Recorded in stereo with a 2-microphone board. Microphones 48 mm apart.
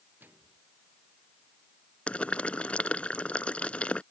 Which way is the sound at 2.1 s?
25° left (ahead or behind).